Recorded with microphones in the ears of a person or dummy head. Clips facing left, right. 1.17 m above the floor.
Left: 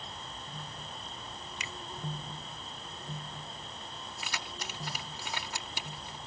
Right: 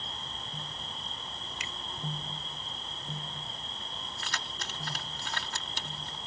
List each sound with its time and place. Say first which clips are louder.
0.0 s an insect: right 1 dB; 15° left (ahead or behind)
1.6 s a finger snap: even; 75° left (ahead or behind)
4.2 s keys jangling: left 1 dB; 15° left (ahead or behind)